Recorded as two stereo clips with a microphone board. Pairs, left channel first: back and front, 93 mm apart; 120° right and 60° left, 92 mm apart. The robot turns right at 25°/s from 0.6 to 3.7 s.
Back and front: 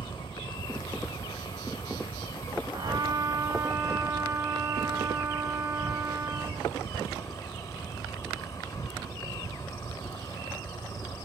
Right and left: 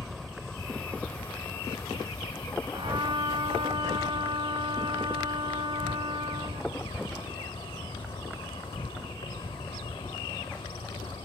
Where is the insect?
155° left; by 11.2 s 130° right.